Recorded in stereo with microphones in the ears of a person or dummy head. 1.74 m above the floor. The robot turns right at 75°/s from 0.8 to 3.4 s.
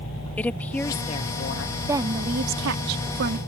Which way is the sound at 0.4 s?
10° left.